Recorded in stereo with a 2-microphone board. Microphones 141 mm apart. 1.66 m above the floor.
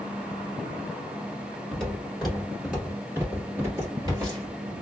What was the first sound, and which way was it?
Footsteps, 10° left (ahead or behind).